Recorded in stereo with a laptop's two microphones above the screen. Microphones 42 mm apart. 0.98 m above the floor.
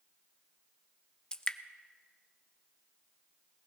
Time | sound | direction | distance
1.3 | dripping | 20° left (ahead or behind) | 0.6 m